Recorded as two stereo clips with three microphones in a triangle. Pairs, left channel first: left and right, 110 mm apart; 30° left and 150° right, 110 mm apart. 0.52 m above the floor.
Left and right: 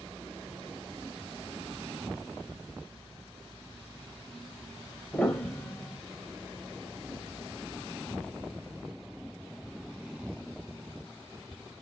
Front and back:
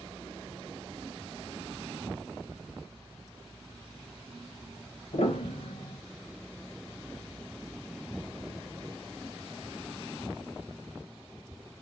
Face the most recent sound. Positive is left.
turn(degrees=15)